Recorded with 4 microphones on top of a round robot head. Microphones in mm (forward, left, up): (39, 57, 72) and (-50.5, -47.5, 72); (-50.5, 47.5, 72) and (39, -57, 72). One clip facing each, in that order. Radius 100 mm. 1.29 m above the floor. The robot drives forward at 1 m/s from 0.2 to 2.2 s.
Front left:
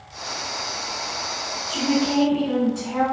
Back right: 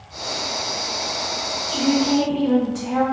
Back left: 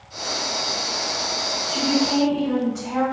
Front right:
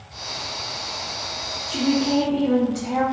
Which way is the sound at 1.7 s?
60° right.